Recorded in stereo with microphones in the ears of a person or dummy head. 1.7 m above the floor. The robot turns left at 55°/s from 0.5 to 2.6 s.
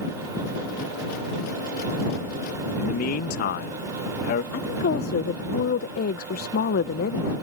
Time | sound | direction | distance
2.8 | a man speaking | 55° left (ahead or behind) | ?
4.5 | a woman speaking | 55° left (ahead or behind) | ?